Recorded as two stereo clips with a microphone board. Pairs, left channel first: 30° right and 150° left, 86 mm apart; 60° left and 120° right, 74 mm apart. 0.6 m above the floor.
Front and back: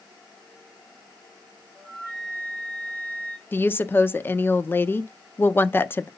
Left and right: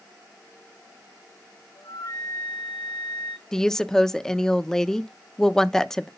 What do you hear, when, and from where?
1.8 s a flute: 45° left, 3 m
3.5 s a woman speaking: 10° right, 0.6 m